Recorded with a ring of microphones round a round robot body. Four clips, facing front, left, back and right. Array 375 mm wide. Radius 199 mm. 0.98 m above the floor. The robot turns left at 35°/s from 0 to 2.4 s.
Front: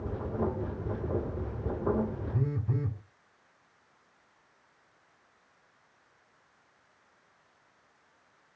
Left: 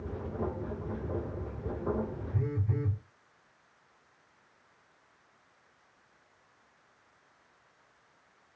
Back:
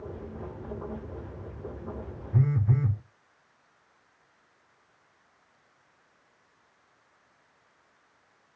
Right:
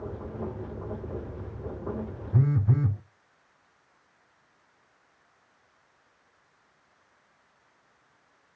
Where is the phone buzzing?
115° right, 0.6 m; by 3.0 s 120° right, 0.6 m.